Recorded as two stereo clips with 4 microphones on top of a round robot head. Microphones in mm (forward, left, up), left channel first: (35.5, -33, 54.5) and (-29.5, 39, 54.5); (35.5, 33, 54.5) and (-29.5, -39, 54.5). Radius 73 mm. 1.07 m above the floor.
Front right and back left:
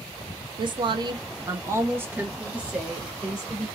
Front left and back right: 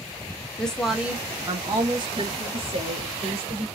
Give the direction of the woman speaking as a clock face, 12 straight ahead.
8 o'clock.